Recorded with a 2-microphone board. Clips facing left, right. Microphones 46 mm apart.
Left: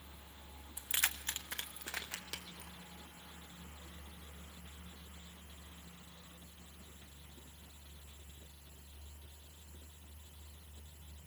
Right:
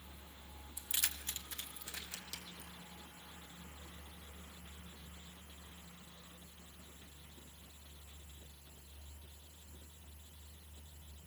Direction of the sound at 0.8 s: 30° left (ahead or behind).